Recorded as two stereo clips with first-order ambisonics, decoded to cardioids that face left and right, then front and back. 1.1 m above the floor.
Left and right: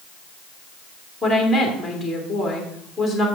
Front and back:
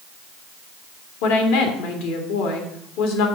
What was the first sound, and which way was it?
A woman speaking, straight ahead.